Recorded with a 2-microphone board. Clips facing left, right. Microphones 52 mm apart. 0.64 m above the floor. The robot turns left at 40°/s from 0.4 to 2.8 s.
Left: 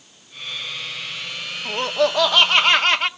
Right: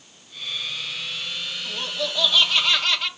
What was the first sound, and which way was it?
Laughter, 100° left.